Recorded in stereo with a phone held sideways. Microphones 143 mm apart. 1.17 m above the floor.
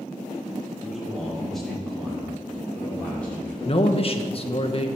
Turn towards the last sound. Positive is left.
turn(degrees=40)  # may be behind; listen again after turning